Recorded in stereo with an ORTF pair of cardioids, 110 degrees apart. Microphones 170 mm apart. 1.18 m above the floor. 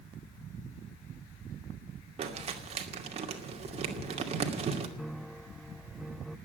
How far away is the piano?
About 0.7 m.